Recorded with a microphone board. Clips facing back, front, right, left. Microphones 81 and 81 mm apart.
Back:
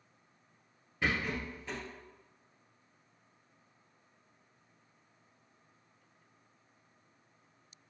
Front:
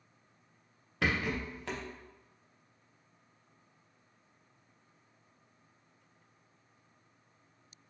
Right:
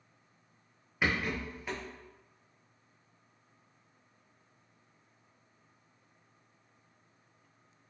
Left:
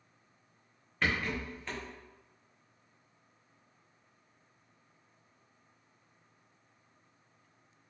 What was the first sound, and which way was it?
A rattle, 10° right.